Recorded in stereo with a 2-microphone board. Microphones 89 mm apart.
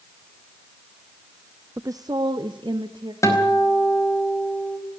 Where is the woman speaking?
30° right (ahead or behind), 0.6 m; by 3.1 s 65° right (ahead or behind), 2 m.